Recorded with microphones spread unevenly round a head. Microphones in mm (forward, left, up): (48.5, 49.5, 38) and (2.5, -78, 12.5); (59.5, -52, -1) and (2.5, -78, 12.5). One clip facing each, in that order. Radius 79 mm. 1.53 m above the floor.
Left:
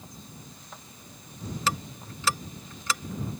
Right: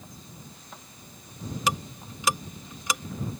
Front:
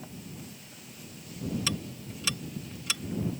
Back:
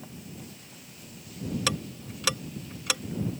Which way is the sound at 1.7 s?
170° left.